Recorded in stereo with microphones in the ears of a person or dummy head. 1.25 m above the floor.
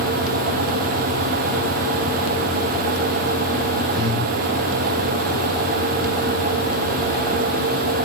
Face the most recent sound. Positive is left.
turn(degrees=-25)  # may be behind; listen again after turning